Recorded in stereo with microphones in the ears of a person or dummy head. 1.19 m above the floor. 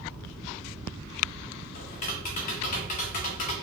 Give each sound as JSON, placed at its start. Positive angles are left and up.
{"t": 1.8, "sound": "tapping", "side_deg": 40, "distance_m": 0.7}